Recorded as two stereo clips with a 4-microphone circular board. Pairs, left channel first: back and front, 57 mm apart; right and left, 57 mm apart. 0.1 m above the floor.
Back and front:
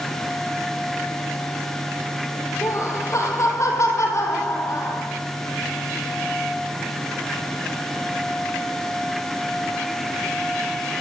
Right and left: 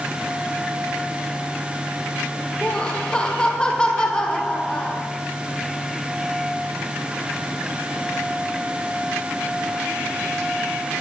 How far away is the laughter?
About 4.5 m.